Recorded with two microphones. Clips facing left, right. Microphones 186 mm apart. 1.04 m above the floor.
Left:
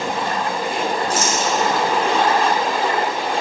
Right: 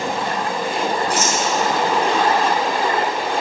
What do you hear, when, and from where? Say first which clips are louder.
1.1 s a rattle: even; 65° right (ahead or behind), 3.5 m